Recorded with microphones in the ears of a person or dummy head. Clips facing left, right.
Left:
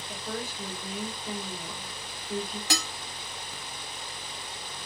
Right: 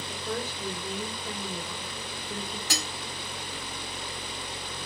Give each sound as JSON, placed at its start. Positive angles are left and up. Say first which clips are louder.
{"t": 0.1, "sound": "a woman speaking", "louder": "right 2 dB", "side_deg": 15, "distance_m": 5.0}
{"t": 2.7, "sound": "dishes clattering", "louder": "left 4 dB", "side_deg": 60, "distance_m": 2.0}